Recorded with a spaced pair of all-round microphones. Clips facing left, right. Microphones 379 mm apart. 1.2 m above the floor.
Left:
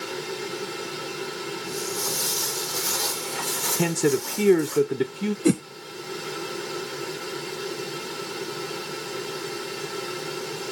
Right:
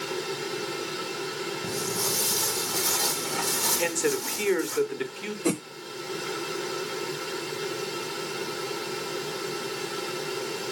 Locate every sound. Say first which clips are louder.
1.6 s footsteps: right 1 dB; 65° right (ahead or behind), 3 m; by 4.8 s 40° right (ahead or behind), 3.5 m
3.8 s a man speaking: left 5 dB; 55° left (ahead or behind), 0.7 m
5.5 s a whoosh: left 6 dB; 30° left (ahead or behind), 0.5 m